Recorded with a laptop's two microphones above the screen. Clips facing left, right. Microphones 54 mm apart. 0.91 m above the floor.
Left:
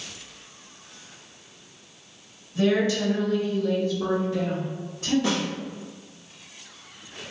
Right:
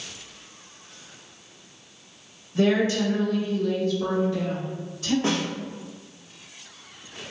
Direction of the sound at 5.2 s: 35° right (ahead or behind).